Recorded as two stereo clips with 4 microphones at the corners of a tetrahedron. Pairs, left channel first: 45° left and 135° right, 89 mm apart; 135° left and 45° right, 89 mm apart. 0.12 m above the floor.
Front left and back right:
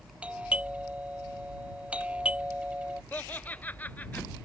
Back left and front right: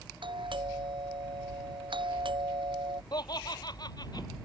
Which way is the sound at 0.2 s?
60° right.